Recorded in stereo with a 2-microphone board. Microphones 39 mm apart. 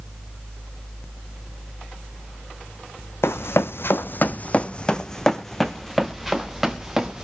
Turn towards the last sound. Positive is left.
turn(degrees=-15)  # may be behind; listen again after turning